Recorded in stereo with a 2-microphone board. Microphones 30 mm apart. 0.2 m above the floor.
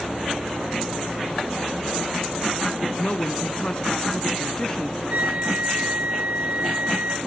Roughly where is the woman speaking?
Left.